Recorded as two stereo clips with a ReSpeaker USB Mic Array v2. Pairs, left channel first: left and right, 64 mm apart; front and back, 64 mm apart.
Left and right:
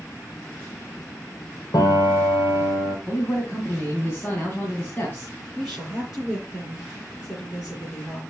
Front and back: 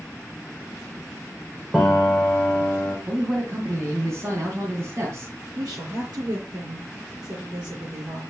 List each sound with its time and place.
1.7 s a piano: 100° left, 3.5 m
3.1 s a man speaking: 150° left, 3 m
5.5 s a woman speaking: 170° right, 6.5 m